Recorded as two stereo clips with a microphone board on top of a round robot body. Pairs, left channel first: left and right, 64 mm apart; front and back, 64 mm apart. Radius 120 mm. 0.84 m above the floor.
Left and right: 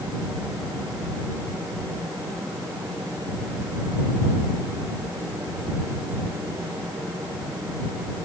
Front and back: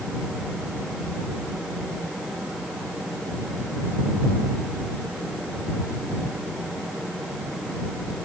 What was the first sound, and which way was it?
Only background noise.